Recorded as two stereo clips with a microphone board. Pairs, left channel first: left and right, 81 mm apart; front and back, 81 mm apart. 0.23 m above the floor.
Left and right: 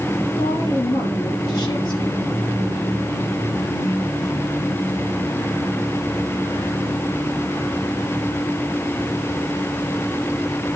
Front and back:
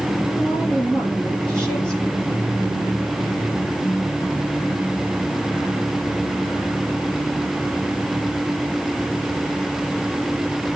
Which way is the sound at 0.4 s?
80° left.